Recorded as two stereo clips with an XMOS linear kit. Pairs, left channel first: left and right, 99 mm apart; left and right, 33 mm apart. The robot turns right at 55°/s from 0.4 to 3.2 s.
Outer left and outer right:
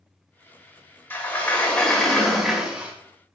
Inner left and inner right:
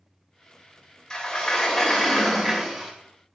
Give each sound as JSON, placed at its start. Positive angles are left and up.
{"t": 1.1, "sound": "a sliding door", "side_deg": 20, "distance_m": 0.9}